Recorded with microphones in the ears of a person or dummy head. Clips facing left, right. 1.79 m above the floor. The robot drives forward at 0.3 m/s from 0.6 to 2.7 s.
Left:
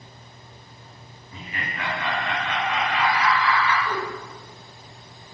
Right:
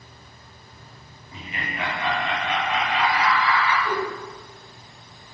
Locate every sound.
1.3 s laughter: 25° right (ahead or behind), 1.0 m; by 3.8 s 20° right (ahead or behind), 1.3 m
3.9 s a whoosh: 40° right (ahead or behind), 0.8 m